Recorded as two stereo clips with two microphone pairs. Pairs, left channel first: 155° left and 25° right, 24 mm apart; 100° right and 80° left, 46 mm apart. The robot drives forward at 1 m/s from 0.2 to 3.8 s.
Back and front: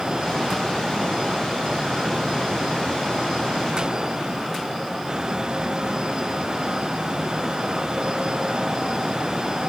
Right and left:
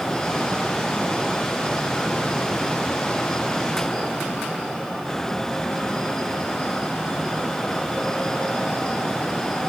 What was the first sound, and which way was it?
Only background noise.